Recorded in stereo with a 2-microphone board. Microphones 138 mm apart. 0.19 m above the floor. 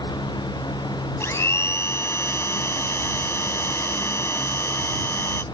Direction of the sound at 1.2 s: 20° left (ahead or behind).